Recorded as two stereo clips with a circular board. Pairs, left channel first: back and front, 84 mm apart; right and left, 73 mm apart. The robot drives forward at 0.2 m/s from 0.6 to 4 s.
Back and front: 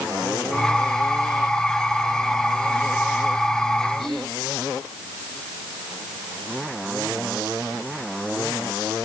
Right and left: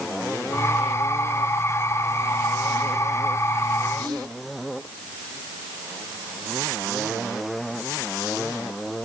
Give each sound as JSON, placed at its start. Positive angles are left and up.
{"t": 4.0, "sound": "whispering", "azimuth_deg": 90, "distance_m": 6.0}